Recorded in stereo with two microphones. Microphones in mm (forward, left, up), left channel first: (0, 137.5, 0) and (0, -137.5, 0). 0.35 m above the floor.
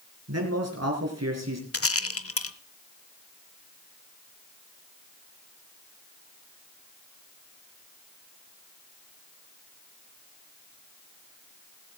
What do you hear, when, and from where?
0.3 s a man speaking: 65° right (ahead or behind), 5.5 m; by 1.6 s 70° right (ahead or behind), 5 m
1.7 s a rattle: 55° left (ahead or behind), 0.8 m